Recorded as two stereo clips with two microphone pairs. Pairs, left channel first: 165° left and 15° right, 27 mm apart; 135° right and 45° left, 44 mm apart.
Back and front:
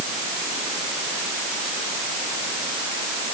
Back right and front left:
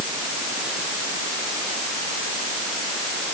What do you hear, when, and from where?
Only background noise.